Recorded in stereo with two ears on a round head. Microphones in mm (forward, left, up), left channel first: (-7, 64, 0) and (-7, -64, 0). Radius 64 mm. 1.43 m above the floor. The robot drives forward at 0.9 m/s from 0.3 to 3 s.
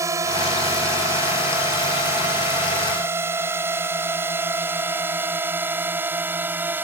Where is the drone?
20° right (ahead or behind); by 6.8 s 15° right (ahead or behind).